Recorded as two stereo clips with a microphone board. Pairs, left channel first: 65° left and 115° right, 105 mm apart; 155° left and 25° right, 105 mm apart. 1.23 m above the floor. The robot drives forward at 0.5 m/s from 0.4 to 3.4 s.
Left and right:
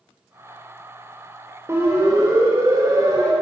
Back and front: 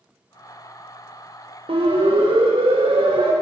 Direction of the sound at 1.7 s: 50° right.